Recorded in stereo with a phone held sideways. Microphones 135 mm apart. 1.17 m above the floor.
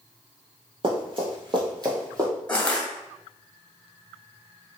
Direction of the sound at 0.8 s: 45° right (ahead or behind).